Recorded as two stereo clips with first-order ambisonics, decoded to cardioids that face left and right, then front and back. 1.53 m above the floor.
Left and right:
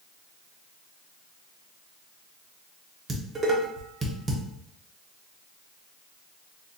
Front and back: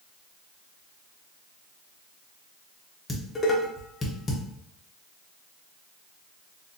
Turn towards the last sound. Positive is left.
turn(degrees=-55)